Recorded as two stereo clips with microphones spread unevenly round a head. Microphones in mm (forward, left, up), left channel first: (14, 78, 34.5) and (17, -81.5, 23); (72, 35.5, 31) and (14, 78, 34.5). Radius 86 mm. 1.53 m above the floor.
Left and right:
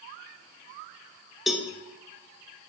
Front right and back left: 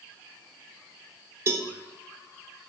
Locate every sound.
1.5 s a cowbell: straight behind, 0.8 m